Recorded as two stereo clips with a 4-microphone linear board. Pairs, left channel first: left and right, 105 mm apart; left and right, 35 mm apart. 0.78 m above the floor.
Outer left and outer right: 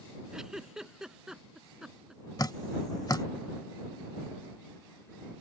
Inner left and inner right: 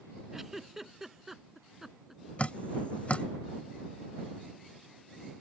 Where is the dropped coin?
I don't hear a dropped coin.